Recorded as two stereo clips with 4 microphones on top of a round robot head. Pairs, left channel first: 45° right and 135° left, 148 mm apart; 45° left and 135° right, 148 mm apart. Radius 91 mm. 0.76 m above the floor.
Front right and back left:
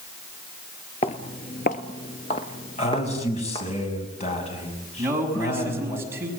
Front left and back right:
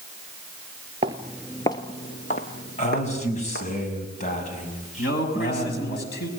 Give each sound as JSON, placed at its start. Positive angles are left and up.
{"t": 1.0, "sound": "footsteps", "azimuth_deg": -85, "distance_m": 0.9}
{"t": 2.8, "sound": "a man speaking", "azimuth_deg": 0, "distance_m": 6.5}
{"t": 5.0, "sound": "a man speaking", "azimuth_deg": 60, "distance_m": 6.0}